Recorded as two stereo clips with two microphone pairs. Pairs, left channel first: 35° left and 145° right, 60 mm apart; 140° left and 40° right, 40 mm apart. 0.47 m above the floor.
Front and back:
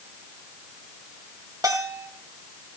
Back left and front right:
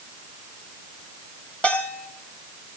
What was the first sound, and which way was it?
A bell, 160° right.